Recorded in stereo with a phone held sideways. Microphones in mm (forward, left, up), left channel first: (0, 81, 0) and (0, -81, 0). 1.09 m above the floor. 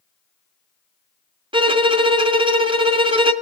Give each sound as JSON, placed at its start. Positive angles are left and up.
{"t": 1.5, "sound": "a violin", "side_deg": -30, "distance_m": 0.6}